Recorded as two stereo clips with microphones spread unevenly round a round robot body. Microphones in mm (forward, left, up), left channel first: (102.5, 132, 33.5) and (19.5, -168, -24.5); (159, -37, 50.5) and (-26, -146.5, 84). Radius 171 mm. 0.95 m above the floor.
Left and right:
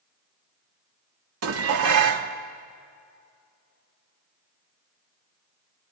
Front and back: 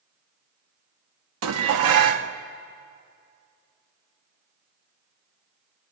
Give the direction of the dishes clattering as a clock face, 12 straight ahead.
5 o'clock.